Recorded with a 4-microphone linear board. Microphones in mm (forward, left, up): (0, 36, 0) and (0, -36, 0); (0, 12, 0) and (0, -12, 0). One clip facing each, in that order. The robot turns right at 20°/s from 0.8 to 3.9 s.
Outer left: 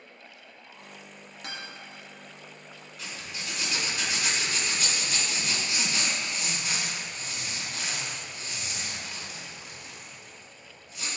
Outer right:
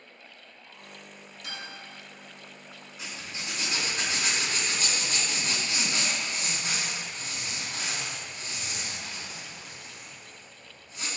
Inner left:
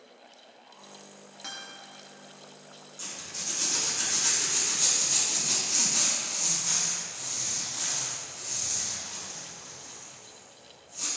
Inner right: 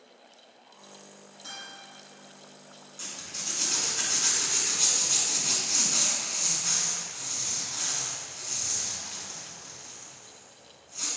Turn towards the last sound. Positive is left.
turn(degrees=-35)  # may be behind; listen again after turning